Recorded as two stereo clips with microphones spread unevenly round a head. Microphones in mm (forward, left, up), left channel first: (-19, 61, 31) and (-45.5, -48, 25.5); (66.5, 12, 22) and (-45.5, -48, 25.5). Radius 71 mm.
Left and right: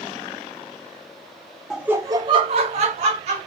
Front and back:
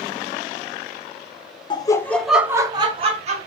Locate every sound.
1.7 s laughter: 15° right, 0.6 m; by 3.5 s 125° right, 0.9 m